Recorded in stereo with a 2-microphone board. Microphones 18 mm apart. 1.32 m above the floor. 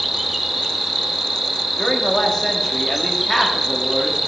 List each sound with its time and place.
0.0 s an insect: 10° right (ahead or behind), 1.4 m
1.8 s a man speaking: 20° left (ahead or behind), 2.5 m